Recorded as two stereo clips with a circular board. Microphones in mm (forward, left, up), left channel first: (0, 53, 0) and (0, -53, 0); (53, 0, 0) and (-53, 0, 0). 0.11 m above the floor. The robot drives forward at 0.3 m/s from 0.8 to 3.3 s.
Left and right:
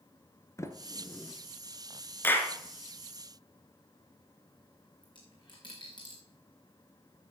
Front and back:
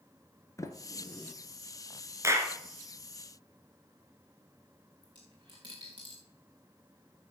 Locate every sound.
0.6 s a sliding door: 45° left, 0.8 m; by 1.3 s 55° left, 0.8 m
2.2 s a clap: 145° left, 1.3 m; by 2.5 s 150° left, 1.3 m
5.0 s a dropped coin: 135° left, 3.5 m